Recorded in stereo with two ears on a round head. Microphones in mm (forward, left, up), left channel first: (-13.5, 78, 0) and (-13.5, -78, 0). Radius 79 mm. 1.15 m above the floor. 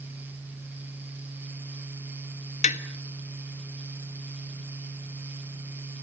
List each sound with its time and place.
2.6 s tapping: 45° left (ahead or behind), 1.4 m